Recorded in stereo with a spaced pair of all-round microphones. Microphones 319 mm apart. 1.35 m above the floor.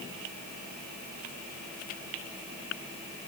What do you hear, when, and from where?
Only background noise.